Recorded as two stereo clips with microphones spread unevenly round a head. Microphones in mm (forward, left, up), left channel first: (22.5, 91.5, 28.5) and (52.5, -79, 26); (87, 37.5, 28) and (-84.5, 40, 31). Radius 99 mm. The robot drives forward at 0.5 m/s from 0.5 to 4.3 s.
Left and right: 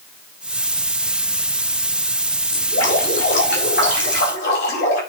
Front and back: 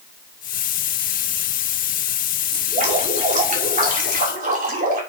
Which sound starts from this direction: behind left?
Dripping, at 2.5 s.